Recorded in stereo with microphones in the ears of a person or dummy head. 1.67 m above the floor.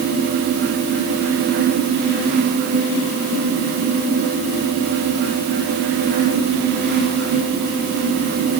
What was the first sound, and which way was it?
Only background noise.